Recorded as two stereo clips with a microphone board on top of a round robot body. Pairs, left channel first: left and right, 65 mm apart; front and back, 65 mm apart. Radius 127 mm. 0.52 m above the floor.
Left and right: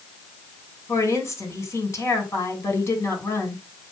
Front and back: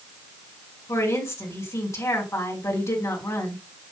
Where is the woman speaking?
45° left, 2.5 m.